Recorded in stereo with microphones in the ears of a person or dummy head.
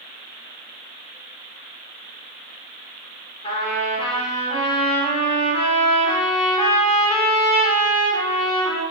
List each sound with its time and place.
3.4 s a trumpet: 30° left (ahead or behind), 4 m